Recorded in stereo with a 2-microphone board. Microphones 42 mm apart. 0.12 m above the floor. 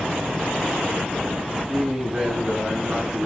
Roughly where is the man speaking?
Centre.